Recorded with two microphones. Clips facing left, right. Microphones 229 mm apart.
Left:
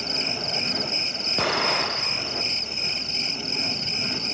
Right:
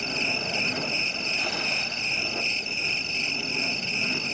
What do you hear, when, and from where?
0.0 s an insect: 45° left (ahead or behind)
1.4 s an explosion: 75° left (ahead or behind)